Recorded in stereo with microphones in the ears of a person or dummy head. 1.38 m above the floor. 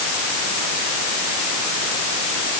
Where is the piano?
No piano in this recording.